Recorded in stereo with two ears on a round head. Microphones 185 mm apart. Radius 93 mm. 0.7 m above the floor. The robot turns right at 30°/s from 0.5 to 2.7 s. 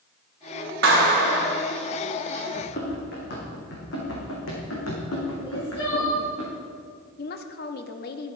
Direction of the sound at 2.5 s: 45° left (ahead or behind).